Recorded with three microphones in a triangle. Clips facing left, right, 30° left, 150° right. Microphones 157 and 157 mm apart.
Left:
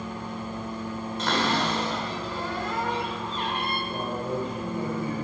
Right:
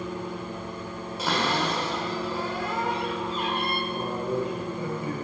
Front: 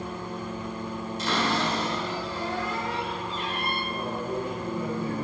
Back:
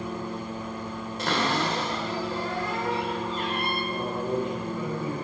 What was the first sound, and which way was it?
A cupboard door, 170° right.